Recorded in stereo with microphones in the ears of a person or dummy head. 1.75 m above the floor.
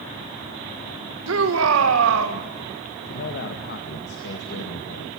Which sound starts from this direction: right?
A shout, at 1.3 s.